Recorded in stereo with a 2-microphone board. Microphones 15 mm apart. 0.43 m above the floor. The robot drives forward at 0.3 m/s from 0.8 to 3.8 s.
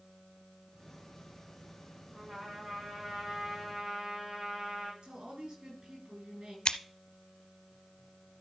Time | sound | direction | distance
2.1 | a trumpet | 75° right (ahead or behind) | 5.5 m
5.0 | a woman speaking | 75° right (ahead or behind) | 6.5 m
6.7 | scissors | 85° left | 0.6 m